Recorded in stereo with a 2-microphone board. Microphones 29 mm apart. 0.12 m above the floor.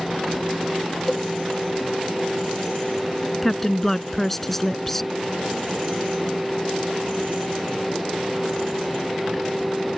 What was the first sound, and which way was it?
A cowbell, 5° left (ahead or behind).